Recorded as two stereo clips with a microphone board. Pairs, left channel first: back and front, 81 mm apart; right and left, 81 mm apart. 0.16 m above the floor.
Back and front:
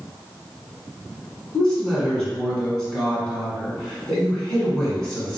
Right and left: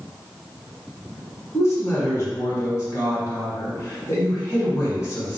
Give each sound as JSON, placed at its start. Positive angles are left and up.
{"t": 1.5, "sound": "a woman speaking", "azimuth_deg": -105, "distance_m": 1.4}